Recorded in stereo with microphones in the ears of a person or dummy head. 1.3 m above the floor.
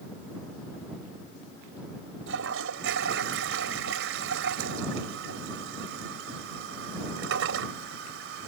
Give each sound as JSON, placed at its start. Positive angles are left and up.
{"t": 2.3, "sound": "a toilet flushing", "side_deg": -75}